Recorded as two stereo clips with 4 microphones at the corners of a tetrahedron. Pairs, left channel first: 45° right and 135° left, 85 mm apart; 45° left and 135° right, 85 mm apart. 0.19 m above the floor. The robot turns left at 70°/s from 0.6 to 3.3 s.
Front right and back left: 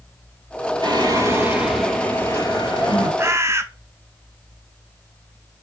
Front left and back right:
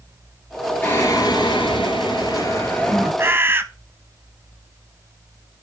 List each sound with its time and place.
0.8 s singing: 110° left, 3 m; by 3.1 s 45° right, 3 m
3.2 s a bird: straight behind, 0.6 m; by 3.6 s 175° left, 0.6 m